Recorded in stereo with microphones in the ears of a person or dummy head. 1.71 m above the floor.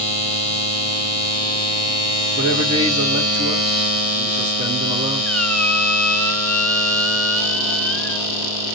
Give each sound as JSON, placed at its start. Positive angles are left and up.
{"t": 2.4, "sound": "a man speaking", "side_deg": -30, "distance_m": 4.0}
{"t": 5.2, "sound": "a squeak", "side_deg": 5, "distance_m": 0.9}